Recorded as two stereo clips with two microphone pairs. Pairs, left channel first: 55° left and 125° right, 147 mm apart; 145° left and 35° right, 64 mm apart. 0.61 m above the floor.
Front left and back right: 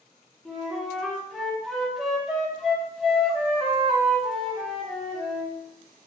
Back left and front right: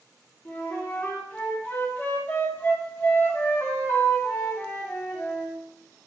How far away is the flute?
About 1.0 m.